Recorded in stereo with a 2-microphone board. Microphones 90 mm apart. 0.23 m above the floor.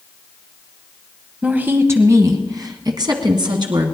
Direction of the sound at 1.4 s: 15° right (ahead or behind).